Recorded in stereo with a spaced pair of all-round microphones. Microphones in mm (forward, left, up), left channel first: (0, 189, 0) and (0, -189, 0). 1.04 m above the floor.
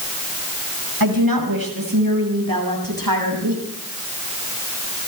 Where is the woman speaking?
65° right (ahead or behind), 5.5 m.